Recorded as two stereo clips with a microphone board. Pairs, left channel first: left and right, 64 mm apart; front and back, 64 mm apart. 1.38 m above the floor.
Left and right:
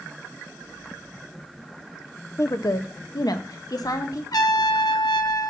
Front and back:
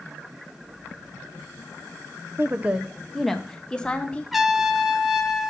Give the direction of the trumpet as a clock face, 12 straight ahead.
9 o'clock.